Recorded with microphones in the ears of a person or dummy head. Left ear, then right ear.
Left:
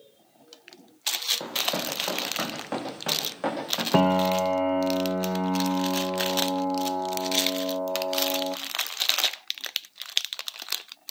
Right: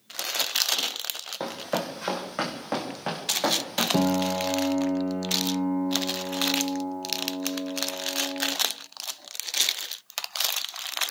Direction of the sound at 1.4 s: 10° right (ahead or behind).